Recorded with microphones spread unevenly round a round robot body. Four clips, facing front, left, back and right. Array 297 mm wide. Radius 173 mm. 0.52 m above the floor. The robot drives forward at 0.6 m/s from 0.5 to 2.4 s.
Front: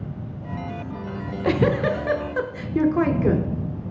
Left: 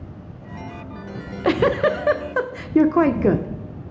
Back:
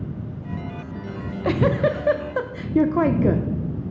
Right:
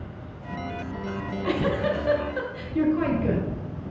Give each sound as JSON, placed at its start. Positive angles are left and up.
{"t": 1.1, "sound": "a giggle", "azimuth_deg": 45, "distance_m": 1.3}